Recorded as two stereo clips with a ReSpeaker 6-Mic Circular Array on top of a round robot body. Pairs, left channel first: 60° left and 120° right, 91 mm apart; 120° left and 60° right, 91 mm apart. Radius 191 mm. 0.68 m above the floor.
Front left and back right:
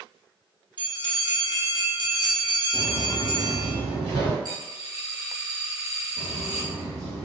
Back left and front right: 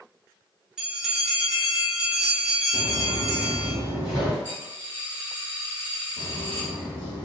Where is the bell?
25° left, 0.9 m.